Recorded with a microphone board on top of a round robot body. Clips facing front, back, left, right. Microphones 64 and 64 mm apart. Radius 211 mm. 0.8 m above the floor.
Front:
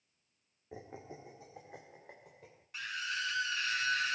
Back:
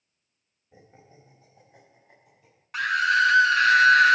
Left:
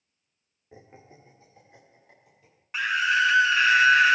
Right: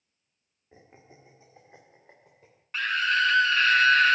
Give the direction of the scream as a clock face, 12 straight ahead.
6 o'clock.